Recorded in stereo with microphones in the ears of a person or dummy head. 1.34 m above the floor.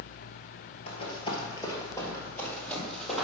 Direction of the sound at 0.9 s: 35° left (ahead or behind).